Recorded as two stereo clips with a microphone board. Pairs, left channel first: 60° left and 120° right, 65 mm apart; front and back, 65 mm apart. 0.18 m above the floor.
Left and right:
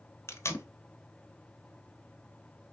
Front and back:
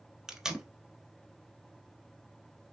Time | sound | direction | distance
0.3 | tape being pulled | 100° left | 0.6 m